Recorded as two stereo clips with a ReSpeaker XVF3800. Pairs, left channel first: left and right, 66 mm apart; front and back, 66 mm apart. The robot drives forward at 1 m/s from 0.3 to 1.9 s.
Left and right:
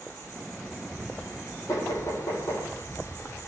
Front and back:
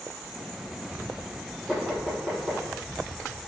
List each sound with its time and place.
1.7 s knocking: 100° left, 4.5 m; by 2.6 s 105° left, 4.5 m